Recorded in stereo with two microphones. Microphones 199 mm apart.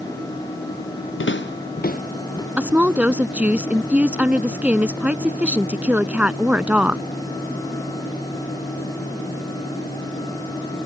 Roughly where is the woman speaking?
Centre.